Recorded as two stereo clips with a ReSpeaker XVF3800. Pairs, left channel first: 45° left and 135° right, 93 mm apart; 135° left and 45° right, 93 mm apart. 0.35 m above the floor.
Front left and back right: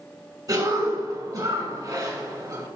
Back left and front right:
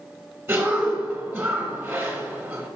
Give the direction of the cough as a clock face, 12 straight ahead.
4 o'clock.